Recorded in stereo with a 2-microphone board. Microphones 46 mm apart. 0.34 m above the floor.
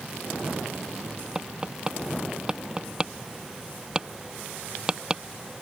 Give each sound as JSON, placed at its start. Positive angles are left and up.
{"t": 1.4, "sound": "tapping", "side_deg": -15}